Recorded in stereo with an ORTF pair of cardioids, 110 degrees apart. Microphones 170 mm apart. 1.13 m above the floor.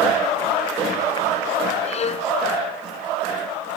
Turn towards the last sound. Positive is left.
turn(degrees=40)